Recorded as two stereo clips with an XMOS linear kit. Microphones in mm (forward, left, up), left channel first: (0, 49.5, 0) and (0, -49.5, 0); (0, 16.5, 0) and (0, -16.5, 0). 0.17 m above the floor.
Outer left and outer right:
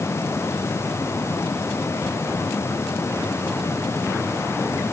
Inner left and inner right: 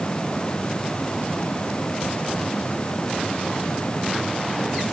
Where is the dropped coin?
No dropped coin in this recording.